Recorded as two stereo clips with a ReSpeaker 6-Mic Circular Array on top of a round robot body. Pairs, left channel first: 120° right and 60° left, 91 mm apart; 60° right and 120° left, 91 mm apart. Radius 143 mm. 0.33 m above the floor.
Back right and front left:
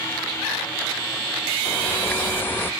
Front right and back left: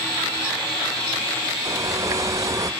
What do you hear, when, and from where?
1.6 s a bird: 175° left, 0.7 m